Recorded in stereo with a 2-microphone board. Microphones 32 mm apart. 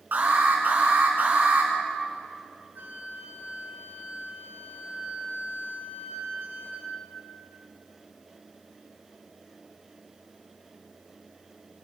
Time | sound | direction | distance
0.1 | an alarm | 70° right (ahead or behind) | 6 m
2.8 | a flute | 70° right (ahead or behind) | 6.5 m